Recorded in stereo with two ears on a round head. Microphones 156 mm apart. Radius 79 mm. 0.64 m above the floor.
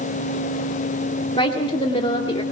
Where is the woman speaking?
30° left (ahead or behind), 1.9 m.